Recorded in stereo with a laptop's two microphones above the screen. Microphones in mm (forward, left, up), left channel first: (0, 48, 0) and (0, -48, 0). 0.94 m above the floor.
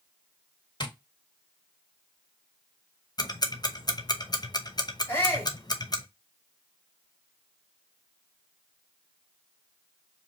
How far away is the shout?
About 2.0 m.